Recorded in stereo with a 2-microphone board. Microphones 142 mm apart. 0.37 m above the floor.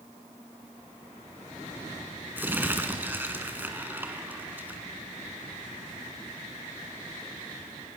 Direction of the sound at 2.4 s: 15° right (ahead or behind).